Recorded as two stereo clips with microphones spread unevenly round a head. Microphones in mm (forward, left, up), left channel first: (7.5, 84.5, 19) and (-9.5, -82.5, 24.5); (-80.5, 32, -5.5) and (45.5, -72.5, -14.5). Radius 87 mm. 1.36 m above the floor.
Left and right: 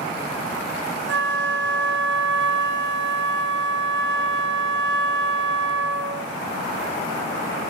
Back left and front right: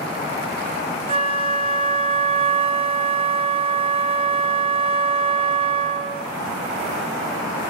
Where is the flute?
95° right, 1.0 m.